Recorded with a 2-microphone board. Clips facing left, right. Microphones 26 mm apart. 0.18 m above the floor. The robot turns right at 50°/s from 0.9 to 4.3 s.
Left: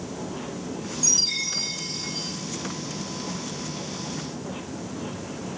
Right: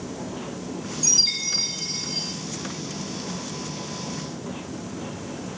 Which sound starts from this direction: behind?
A chime, at 1.0 s.